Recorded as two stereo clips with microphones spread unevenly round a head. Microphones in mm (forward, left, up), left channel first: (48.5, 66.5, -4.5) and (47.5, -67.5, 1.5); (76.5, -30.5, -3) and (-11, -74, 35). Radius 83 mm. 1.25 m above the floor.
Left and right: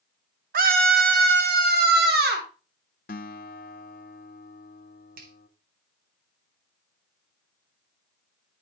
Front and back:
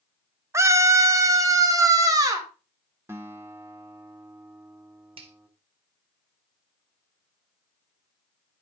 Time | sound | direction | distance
0.5 | a scream | 85° right | 1.2 m
3.1 | a guitar | 135° left | 0.5 m
5.2 | a finger snap | 130° right | 1.2 m